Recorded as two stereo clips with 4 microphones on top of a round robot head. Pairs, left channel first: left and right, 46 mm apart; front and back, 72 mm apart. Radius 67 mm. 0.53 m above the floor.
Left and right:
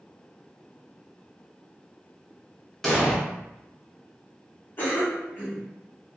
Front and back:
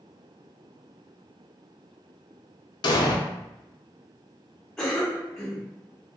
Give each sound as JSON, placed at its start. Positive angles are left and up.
{"t": 2.8, "sound": "an explosion", "azimuth_deg": 10, "distance_m": 0.5}
{"t": 4.8, "sound": "a cough", "azimuth_deg": 80, "distance_m": 1.5}